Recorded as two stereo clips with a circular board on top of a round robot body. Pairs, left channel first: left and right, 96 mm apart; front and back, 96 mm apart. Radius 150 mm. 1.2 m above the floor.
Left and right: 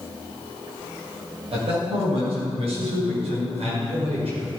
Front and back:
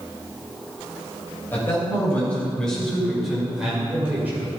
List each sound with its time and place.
1.5 s a man speaking: 70° right, 6.5 m; by 4.5 s 110° right, 5.5 m